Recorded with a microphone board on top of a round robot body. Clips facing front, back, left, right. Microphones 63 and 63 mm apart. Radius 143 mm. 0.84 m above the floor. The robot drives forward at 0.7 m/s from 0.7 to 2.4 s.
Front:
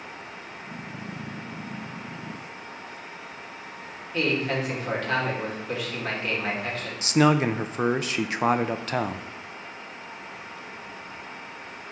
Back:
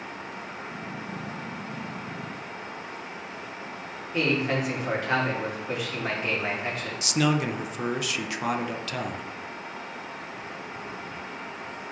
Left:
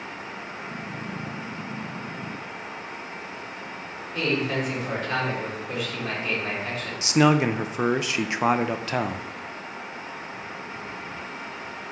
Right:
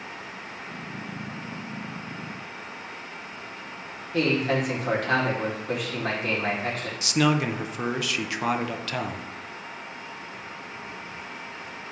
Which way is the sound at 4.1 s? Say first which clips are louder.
Even, right 2 dB; 110° right.